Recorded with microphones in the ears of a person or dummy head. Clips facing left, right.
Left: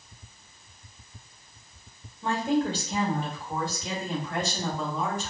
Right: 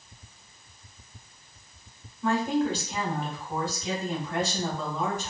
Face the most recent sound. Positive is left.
turn(degrees=60)  # may be behind; listen again after turning